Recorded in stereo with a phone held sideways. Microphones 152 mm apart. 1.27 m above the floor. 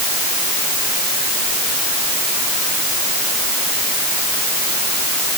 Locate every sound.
Only background noise.